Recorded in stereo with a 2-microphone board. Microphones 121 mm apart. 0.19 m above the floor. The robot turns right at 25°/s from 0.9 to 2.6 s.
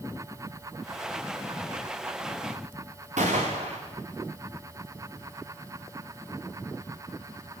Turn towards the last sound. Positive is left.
turn(degrees=-80)